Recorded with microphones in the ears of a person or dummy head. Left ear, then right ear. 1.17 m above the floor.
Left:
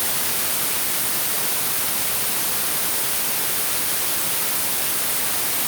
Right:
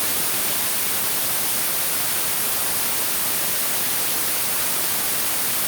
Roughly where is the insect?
I don't hear an insect.